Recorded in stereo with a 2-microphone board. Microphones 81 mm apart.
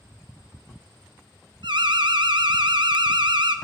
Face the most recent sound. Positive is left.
turn(degrees=-75)  # may be behind; listen again after turning